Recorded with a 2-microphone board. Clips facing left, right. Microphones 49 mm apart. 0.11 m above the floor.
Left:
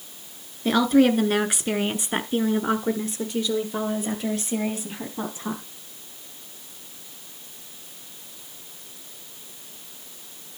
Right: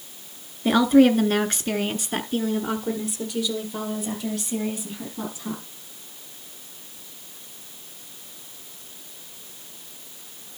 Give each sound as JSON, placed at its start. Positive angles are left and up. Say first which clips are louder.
{"t": 0.7, "sound": "a woman speaking", "louder": "right 2 dB", "side_deg": -5, "distance_m": 1.3}